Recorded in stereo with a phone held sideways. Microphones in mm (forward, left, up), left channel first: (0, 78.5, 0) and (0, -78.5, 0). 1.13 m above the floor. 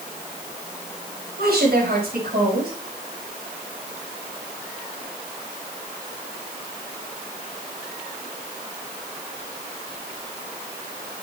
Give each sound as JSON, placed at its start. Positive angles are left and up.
{"t": 1.4, "sound": "a woman speaking", "side_deg": -85, "distance_m": 6.0}